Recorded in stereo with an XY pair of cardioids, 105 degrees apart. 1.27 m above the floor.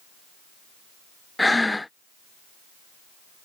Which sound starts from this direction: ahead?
Breathing, at 1.4 s.